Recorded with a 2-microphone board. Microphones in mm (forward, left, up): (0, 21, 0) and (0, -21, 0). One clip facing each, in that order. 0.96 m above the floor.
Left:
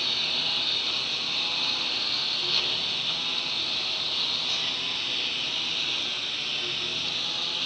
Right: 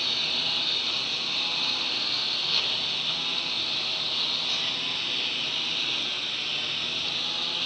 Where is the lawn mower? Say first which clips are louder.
Even; centre (ahead or behind).